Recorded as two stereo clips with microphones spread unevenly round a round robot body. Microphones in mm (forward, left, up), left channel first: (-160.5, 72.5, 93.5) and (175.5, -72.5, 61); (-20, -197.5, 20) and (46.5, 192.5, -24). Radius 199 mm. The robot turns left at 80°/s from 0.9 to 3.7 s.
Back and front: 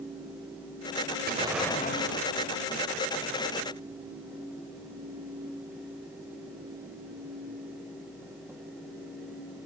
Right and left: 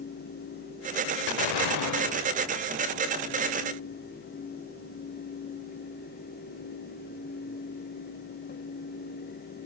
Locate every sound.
1.3 s an explosion: 90° right, 0.8 m; by 2.8 s 150° left, 0.8 m